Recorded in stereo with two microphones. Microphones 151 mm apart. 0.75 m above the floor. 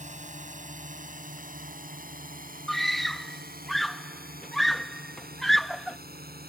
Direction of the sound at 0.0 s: 50° right (ahead or behind).